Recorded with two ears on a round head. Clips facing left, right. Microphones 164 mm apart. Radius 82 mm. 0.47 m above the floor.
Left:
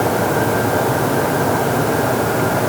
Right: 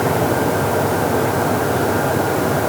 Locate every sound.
Only background noise.